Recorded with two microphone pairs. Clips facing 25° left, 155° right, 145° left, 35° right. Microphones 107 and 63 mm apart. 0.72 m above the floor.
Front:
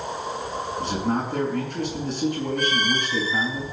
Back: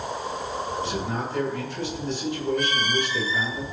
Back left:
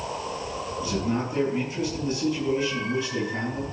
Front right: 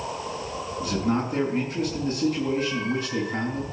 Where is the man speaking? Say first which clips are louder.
Front 3 dB, front right 2 dB; straight ahead, 6 m.